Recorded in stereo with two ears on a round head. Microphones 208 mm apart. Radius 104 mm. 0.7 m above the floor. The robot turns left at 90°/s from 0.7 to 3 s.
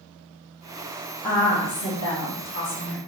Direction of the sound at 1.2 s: 175° left.